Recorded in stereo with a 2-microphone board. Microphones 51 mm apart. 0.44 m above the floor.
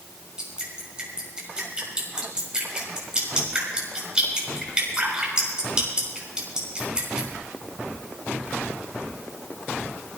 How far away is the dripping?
About 5 m.